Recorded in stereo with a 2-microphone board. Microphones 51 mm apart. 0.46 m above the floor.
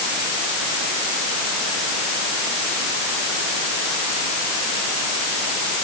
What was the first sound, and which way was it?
Only background noise.